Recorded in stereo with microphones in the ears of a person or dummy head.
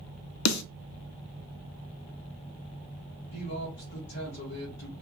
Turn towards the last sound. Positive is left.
turn(degrees=60)  # may be behind; listen again after turning